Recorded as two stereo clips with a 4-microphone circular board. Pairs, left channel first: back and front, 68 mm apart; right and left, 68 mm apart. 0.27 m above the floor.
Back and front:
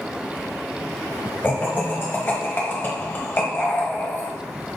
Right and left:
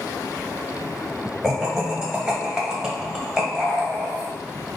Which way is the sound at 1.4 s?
160° left.